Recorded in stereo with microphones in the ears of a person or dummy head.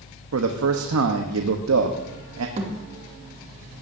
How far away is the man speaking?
About 1.1 m.